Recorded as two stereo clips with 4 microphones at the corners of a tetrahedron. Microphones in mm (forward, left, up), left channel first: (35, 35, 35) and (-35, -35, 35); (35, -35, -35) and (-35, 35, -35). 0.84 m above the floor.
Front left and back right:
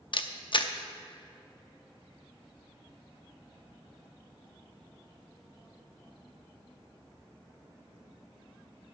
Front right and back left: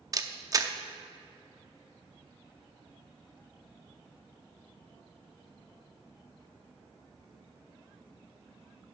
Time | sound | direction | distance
0.1 | a camera shutter | 80° left | 0.6 m